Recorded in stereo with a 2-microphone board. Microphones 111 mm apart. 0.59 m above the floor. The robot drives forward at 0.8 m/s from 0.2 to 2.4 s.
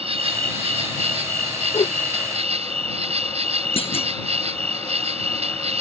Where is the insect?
65° right (ahead or behind); by 5.8 s 70° right (ahead or behind).